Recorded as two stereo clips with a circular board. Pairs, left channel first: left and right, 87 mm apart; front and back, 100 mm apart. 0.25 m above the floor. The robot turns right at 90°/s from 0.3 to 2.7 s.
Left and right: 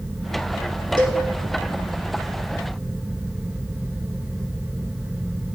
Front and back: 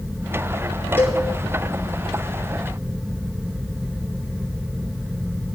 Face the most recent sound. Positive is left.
turn(degrees=90)